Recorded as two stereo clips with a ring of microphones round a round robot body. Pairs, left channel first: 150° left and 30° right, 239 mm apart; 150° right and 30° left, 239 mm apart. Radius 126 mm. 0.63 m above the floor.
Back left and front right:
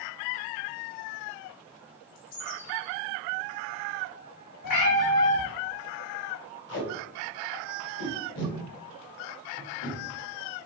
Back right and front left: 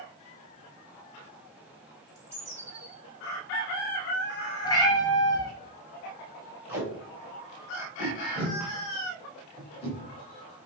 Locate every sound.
2.1 s a bird: 110° left, 2.5 m
4.6 s a cat meowing: 135° left, 1.5 m
6.7 s tape being pulled: 110° left, 1.8 m